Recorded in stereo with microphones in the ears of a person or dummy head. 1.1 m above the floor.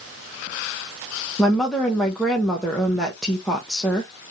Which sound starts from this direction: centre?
A woman speaking, at 1.4 s.